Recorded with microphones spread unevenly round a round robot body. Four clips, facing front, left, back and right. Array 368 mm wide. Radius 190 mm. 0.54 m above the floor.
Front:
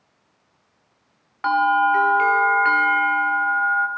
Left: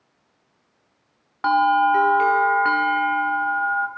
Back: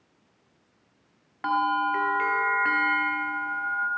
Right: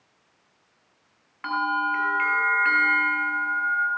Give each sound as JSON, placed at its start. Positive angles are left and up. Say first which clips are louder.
{"t": 1.4, "sound": "a bell", "louder": "left 9 dB, front 7 dB", "azimuth_deg": 80, "distance_m": 1.3}